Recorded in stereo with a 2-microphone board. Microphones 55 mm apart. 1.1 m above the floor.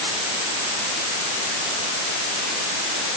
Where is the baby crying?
No baby crying in this recording.